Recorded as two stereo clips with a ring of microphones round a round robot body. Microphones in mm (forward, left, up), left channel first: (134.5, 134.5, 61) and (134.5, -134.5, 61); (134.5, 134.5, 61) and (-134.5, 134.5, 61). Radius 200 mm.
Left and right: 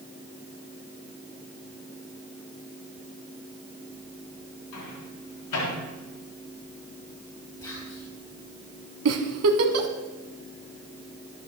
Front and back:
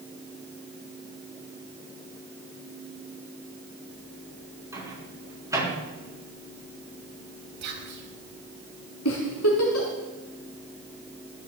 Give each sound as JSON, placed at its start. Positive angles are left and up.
{"t": 4.7, "sound": "a microwave", "azimuth_deg": 100, "distance_m": 6.0}
{"t": 7.6, "sound": "whispering", "azimuth_deg": 170, "distance_m": 3.0}
{"t": 9.1, "sound": "a giggle", "azimuth_deg": -55, "distance_m": 1.4}